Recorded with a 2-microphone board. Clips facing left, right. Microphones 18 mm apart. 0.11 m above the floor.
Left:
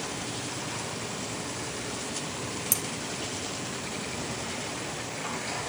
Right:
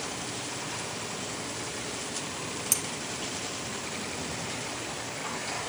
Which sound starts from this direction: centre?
Cutlery clinking, at 2.7 s.